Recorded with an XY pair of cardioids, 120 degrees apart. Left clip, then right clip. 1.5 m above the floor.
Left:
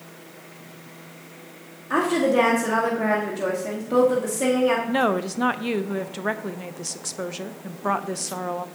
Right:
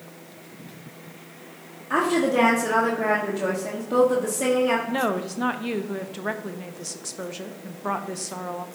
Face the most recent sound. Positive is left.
turn(degrees=20)